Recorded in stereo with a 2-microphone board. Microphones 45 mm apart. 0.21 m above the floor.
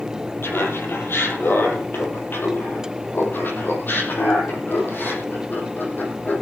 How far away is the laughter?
About 4.5 m.